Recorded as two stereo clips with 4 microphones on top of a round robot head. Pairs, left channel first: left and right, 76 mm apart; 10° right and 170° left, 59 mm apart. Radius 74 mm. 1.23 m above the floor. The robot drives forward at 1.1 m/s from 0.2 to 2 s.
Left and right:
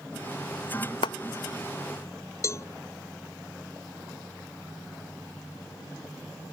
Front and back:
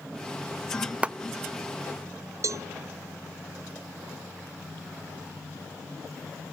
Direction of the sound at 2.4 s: 140° left.